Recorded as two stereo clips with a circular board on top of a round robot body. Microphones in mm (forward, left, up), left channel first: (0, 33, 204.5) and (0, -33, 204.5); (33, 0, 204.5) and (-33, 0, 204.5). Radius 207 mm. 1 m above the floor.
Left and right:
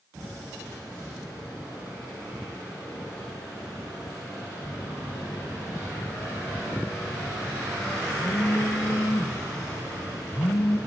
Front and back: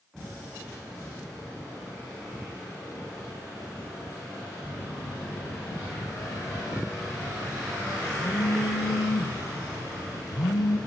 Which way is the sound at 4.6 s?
35° left.